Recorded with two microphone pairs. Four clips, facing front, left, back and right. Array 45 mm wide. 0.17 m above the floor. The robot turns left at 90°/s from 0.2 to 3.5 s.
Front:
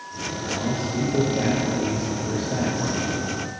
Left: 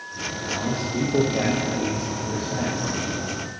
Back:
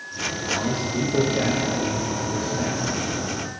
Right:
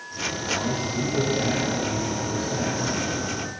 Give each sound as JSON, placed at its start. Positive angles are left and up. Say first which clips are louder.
{"t": 0.6, "sound": "a man speaking", "louder": "left 4 dB, front 1 dB", "azimuth_deg": 170, "distance_m": 7.0}